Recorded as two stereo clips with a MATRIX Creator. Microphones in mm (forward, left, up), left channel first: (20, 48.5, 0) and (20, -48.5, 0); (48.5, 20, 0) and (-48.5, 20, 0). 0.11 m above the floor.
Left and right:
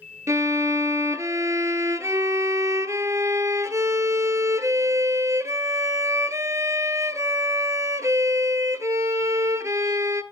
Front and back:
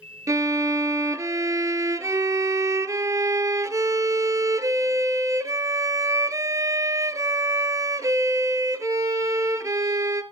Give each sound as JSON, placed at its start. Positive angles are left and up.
{"t": 0.3, "sound": "a violin", "azimuth_deg": -135, "distance_m": 0.6}